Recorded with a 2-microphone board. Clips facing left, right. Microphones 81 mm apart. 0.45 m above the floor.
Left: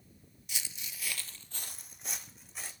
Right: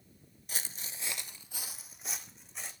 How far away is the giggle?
I don't hear a giggle.